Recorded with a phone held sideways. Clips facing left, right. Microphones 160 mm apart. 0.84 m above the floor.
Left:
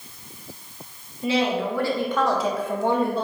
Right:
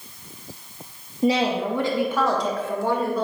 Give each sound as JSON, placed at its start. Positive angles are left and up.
{"t": 1.2, "sound": "a woman speaking", "side_deg": -40, "distance_m": 0.9}